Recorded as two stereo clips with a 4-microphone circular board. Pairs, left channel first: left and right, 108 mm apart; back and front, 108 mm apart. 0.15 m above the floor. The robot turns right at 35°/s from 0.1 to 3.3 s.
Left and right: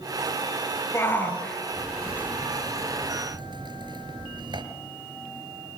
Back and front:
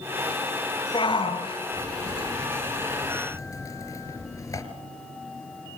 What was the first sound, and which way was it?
A shout, 150° left.